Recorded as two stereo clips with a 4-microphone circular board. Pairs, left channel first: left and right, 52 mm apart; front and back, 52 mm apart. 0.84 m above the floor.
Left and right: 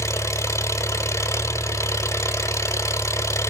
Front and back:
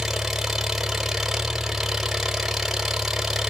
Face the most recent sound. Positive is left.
turn(degrees=95)